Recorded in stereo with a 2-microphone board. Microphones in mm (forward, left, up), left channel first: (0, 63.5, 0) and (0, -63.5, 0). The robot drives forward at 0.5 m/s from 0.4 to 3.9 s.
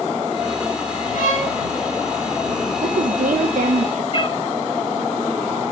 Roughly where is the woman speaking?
Right.